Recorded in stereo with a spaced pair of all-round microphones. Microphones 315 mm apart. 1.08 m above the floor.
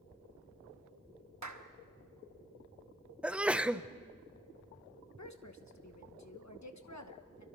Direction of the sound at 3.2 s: 5° right (ahead or behind).